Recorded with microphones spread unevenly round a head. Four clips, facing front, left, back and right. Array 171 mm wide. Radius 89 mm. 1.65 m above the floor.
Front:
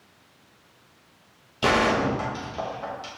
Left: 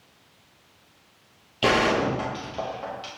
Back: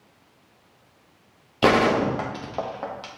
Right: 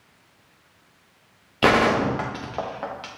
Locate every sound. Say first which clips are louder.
1.6 s a gunshot: right 3 dB, back 3 dB; 160° right, 1.0 m